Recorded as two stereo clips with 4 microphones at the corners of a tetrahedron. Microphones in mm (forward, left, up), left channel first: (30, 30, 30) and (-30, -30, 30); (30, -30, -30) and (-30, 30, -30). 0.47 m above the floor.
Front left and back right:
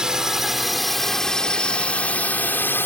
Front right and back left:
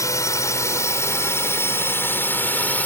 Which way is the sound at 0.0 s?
55° right.